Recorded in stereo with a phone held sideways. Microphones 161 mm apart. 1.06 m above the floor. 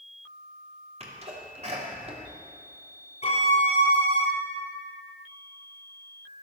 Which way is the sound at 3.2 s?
50° left (ahead or behind).